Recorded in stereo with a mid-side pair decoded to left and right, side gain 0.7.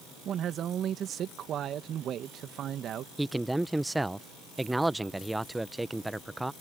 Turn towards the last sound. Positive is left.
turn(degrees=-5)